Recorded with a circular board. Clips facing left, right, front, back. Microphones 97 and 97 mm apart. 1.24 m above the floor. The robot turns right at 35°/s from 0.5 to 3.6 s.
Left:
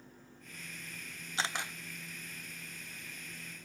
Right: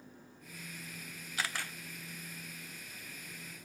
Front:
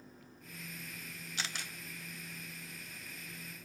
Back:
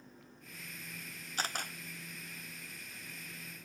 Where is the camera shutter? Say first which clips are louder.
Left 2 dB, back 5 dB; 150° left, 0.6 m; by 1.7 s 160° left, 0.6 m.